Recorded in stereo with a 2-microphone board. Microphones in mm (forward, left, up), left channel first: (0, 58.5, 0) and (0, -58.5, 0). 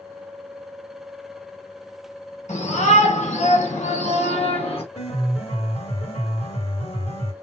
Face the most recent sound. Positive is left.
turn(degrees=65)  # may be behind; listen again after turning